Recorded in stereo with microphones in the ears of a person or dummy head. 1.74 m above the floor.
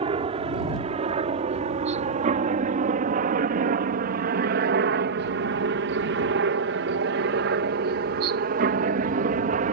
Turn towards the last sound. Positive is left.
turn(degrees=-50)  # may be behind; listen again after turning